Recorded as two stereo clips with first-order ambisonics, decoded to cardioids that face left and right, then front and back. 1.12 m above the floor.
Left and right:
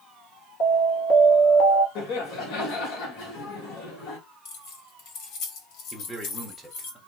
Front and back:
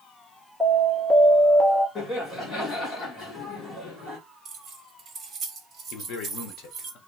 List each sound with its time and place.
0.6 s an alarm: 95° left, 1.9 m
1.9 s laughter: 70° left, 1.9 m
4.5 s keys jangling: 105° left, 1.4 m
5.9 s a man speaking: straight ahead, 1.1 m